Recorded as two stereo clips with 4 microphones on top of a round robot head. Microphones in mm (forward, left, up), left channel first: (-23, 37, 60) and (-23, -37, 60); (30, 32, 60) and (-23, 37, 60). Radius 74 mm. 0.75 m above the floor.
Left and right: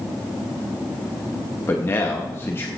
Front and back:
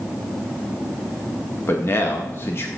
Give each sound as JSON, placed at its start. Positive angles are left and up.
{"t": 1.7, "sound": "a man speaking", "azimuth_deg": 30, "distance_m": 1.6}